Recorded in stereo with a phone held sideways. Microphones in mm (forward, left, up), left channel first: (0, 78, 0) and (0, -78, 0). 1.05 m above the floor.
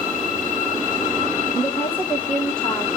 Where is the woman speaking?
20° left (ahead or behind), 1.6 m; by 2.9 s 5° left (ahead or behind), 2.5 m.